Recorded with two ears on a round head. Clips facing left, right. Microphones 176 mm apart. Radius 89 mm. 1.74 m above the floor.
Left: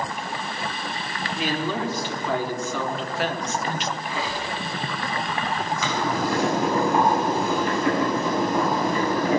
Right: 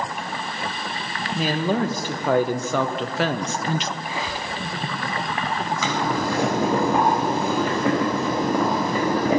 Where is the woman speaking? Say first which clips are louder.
Right 4 dB; 35° right (ahead or behind), 2 m; by 3.9 s 65° right (ahead or behind), 0.8 m.